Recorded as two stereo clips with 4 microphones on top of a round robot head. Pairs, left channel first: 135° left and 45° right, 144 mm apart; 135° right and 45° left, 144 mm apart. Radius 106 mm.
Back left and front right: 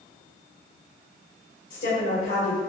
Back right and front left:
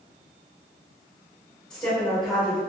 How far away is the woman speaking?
About 1.8 m.